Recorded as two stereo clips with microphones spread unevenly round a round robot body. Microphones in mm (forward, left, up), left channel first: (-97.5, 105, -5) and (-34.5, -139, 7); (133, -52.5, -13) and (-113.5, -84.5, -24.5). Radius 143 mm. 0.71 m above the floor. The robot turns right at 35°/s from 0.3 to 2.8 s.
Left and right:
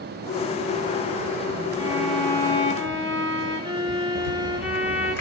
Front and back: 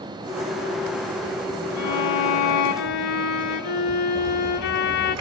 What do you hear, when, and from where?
1.8 s a violin: straight ahead, 1.2 m; by 5.2 s 35° left, 1.2 m
4.2 s a rattle: 145° left, 8 m